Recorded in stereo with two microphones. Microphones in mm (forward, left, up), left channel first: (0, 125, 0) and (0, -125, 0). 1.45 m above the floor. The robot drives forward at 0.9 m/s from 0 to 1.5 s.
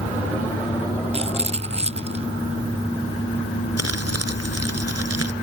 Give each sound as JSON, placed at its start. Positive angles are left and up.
{"t": 1.1, "sound": "a rattle", "side_deg": -25}
{"t": 3.8, "sound": "crumpling", "side_deg": -75}